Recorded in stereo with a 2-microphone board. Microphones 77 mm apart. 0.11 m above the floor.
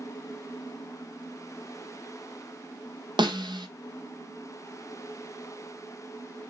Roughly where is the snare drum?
Right.